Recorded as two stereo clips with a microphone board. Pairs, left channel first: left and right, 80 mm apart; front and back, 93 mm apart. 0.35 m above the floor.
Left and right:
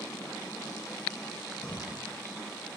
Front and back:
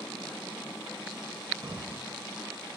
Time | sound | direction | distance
1.6 | breathing | 165° left | 1.0 m